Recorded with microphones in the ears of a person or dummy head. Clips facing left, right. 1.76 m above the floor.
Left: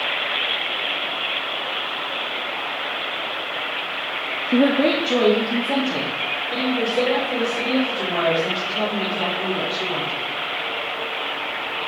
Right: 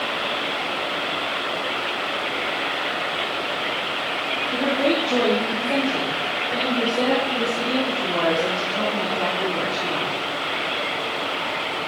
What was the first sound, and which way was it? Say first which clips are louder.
A woman speaking: left 5 dB; 65° left (ahead or behind).